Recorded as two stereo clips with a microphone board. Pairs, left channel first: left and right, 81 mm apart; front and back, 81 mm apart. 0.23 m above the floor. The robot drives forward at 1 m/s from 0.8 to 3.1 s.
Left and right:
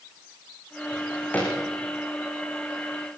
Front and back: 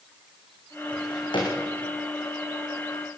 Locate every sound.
0.9 s a drawer: 20° left, 9 m